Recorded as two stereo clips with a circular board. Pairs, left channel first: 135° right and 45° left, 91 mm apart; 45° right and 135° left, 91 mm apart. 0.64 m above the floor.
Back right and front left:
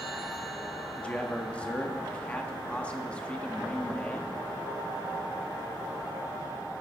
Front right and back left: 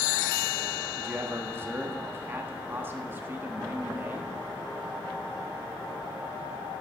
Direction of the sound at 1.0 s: 165° left.